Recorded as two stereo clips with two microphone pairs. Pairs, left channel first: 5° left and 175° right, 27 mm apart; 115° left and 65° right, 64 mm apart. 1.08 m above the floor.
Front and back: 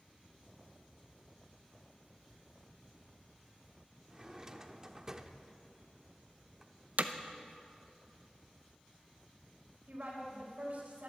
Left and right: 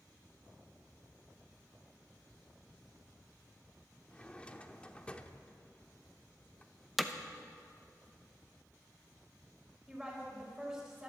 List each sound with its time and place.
4.1 s a drawer: 155° left, 0.7 m
7.0 s hammering: 155° right, 0.7 m
9.9 s a woman speaking: 150° right, 4.5 m